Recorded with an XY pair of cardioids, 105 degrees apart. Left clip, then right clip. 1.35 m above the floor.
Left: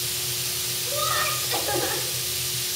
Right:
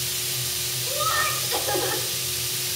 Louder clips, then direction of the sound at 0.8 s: Right 1 dB; 30° left.